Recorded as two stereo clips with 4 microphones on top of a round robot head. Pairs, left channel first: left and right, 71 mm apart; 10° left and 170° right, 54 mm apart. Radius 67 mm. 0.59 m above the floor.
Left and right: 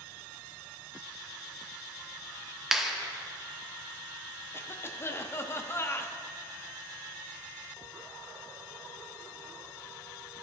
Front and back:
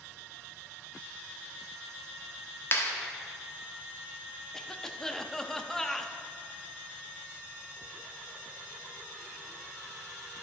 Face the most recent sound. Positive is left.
turn(degrees=85)